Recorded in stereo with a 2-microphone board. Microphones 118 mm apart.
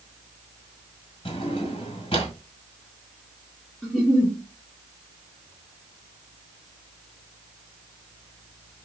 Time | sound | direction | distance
1.2 | a drawer | 50° left (ahead or behind) | 1.6 m
3.8 | a giggle | 5° left (ahead or behind) | 2 m